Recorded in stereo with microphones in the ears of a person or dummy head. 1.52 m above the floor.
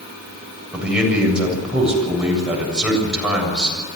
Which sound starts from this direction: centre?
A man speaking, at 0.7 s.